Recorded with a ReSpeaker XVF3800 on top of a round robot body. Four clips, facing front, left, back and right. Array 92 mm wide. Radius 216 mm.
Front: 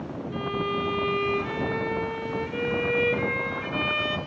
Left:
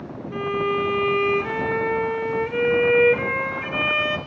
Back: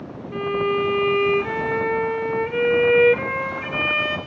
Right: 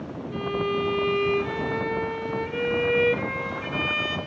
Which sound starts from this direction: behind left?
A violin, at 0.3 s.